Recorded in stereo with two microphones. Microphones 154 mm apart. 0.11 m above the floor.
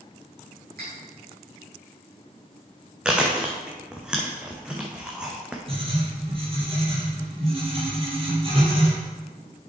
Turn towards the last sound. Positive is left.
turn(degrees=-35)  # may be behind; listen again after turning